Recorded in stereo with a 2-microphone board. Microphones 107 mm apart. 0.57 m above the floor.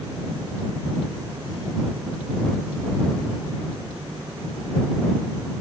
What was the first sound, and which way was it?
Only background noise.